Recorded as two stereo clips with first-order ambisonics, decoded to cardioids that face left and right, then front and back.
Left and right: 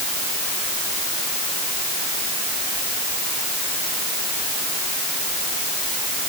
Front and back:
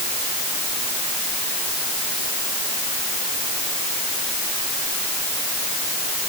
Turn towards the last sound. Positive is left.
No sound to turn to.